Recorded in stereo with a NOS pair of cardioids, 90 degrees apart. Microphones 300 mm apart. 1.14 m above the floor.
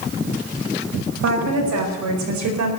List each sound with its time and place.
1.2 s a woman speaking: 60° right, 5.5 m; by 2.7 s 75° right, 4.5 m